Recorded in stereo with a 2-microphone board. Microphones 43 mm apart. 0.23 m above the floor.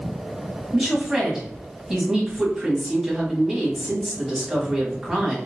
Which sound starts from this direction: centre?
A woman speaking, at 0.7 s.